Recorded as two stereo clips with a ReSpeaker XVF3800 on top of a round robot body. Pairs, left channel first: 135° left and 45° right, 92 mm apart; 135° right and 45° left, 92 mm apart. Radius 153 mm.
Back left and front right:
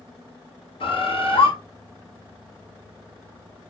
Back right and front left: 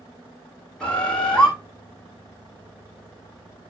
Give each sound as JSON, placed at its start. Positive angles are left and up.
{"t": 0.8, "sound": "a bird", "azimuth_deg": 140, "distance_m": 3.0}